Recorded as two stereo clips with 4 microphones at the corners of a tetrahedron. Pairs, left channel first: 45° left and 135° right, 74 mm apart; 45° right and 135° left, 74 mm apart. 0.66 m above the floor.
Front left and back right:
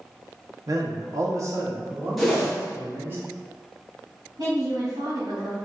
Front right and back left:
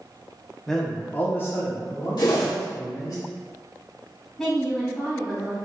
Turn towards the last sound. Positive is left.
turn(degrees=-125)